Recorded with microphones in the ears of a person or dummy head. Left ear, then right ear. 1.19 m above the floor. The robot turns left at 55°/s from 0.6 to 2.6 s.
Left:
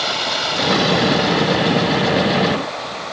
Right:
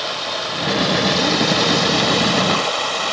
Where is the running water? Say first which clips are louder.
Left 3 dB; 10° left, 2 m; by 3.1 s 100° right, 2 m.